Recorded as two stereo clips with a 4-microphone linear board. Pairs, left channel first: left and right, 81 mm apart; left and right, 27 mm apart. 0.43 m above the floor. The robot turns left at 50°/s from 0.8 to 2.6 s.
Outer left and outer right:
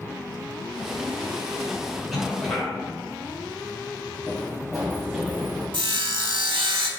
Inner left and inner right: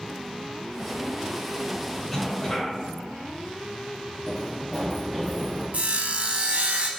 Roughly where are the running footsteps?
Centre.